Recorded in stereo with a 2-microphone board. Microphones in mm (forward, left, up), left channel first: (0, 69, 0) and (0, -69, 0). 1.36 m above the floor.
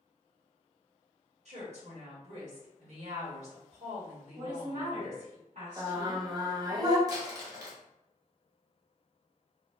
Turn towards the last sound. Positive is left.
turn(degrees=-25)  # may be behind; listen again after turning